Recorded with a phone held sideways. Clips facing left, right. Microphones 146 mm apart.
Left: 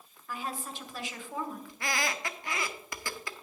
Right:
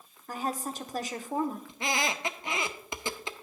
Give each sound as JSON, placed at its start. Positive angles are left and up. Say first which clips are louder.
{"t": 0.3, "sound": "a woman speaking", "louder": "right 5 dB", "side_deg": -40, "distance_m": 1.0}
{"t": 1.7, "sound": "a squeak", "louder": "right 2 dB", "side_deg": -20, "distance_m": 0.7}